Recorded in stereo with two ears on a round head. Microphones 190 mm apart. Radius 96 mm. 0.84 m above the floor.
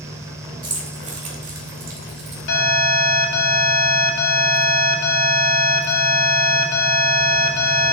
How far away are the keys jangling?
About 2 m.